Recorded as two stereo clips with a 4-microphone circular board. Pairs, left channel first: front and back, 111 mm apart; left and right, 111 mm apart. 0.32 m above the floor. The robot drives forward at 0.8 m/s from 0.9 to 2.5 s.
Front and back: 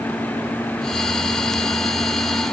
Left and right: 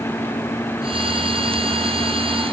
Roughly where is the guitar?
I don't hear a guitar.